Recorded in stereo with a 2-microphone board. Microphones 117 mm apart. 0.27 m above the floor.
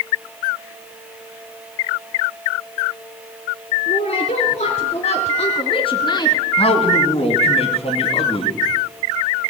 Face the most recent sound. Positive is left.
turn(degrees=60)  # may be behind; listen again after turning